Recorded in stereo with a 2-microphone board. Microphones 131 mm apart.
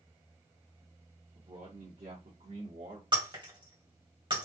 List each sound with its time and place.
1.4 s a man speaking: 50° right (ahead or behind), 1.5 m; by 3.0 s 60° right (ahead or behind), 1.8 m
3.1 s breaking glass: 40° right (ahead or behind), 2 m